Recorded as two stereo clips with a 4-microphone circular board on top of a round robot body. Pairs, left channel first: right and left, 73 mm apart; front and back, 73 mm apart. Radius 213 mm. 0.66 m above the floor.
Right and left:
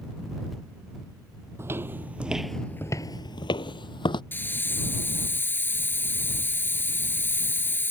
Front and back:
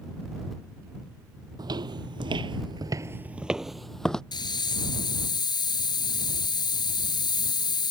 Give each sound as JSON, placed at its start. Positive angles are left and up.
{"t": 1.6, "sound": "footsteps", "azimuth_deg": 150}
{"t": 4.3, "sound": "a hiss", "azimuth_deg": -25}